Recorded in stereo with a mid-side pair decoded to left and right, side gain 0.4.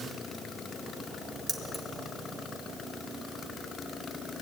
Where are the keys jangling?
5° right, 2 m.